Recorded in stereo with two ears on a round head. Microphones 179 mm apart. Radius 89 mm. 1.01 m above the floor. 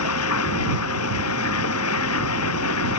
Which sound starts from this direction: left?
Running water, at 0.0 s.